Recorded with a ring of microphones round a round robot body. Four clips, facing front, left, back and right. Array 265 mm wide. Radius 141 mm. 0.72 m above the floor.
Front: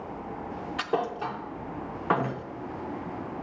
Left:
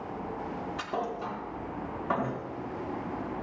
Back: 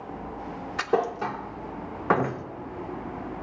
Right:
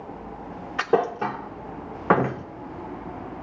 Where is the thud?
105° right, 0.6 m.